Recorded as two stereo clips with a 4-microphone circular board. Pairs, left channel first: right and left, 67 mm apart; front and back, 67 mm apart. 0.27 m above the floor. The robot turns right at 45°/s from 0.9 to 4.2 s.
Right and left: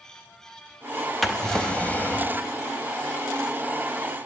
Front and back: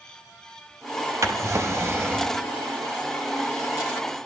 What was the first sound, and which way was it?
A drawer, straight behind.